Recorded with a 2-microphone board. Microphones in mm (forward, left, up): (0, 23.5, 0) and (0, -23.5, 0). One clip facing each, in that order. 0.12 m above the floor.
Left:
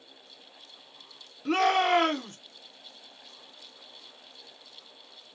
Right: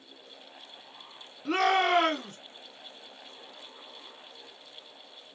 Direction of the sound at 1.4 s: 5° right (ahead or behind).